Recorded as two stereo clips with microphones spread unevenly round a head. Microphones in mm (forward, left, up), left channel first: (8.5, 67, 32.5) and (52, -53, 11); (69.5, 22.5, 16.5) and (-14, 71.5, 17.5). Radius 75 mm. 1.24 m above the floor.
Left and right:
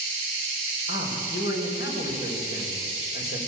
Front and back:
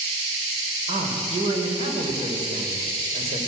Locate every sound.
0.9 s a man speaking: 135° left, 5 m